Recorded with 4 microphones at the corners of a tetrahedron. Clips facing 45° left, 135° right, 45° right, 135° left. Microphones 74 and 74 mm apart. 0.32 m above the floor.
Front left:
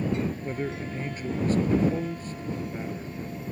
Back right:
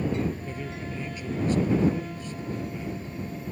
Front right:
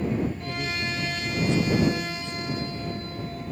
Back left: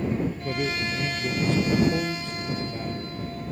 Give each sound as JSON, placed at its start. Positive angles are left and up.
{"t": 0.4, "sound": "a man speaking", "azimuth_deg": 95}